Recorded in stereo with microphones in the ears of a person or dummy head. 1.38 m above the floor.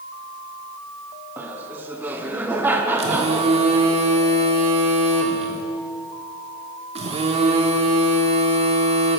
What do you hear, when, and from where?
1.4 s laughter: 10° right (ahead or behind), 0.8 m
3.0 s a phone buzzing: 30° right (ahead or behind), 1.4 m